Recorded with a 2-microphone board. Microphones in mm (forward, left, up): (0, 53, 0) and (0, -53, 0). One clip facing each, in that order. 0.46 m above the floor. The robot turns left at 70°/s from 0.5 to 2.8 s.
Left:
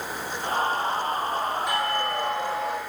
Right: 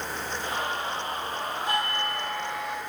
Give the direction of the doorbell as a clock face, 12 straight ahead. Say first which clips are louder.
Left 3 dB; 5 o'clock.